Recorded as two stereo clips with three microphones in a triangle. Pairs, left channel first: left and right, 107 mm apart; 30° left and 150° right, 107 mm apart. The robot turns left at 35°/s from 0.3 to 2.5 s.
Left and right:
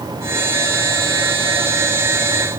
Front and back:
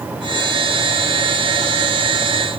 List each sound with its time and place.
Only background noise.